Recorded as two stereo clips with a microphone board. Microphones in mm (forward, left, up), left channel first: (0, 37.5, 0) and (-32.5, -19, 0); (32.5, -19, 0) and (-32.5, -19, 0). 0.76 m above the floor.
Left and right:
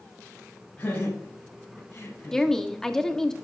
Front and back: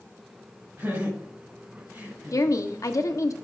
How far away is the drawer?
I don't hear a drawer.